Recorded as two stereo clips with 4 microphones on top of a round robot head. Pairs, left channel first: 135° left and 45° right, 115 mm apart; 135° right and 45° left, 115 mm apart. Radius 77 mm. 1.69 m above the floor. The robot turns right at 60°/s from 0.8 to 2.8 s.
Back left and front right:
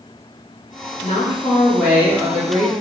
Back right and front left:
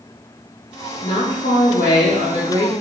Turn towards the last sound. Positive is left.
turn(degrees=-75)